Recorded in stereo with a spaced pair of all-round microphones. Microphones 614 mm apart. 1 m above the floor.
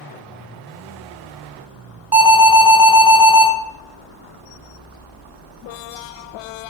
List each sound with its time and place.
2.1 s an alarm: 20° right (ahead or behind), 1.7 m